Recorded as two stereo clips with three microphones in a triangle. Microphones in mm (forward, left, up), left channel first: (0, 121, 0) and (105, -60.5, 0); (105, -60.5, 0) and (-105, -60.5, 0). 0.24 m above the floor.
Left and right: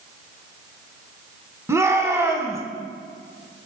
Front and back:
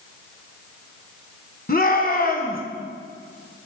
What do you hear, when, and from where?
1.7 s a shout: 10° left, 2.5 m